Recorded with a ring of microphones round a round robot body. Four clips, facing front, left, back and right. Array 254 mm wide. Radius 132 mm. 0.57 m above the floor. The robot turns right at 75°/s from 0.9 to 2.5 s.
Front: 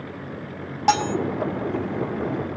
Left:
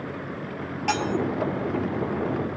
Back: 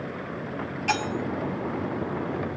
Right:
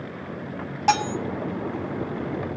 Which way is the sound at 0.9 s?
30° right.